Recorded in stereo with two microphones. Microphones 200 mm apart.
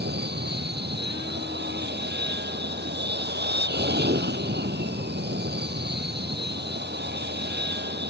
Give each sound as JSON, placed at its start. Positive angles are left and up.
{"t": 0.0, "sound": "an aircraft", "side_deg": -55}